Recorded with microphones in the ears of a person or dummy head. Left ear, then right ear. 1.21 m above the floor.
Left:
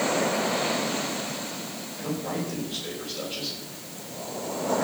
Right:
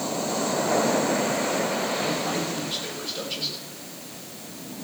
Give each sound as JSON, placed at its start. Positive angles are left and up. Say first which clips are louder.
{"t": 2.0, "sound": "a man speaking", "louder": "right 5 dB", "side_deg": -35, "distance_m": 7.0}